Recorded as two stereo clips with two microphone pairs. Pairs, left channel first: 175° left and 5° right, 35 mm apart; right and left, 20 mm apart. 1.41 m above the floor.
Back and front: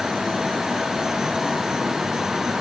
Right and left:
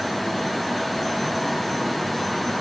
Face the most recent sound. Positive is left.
No sound to turn to.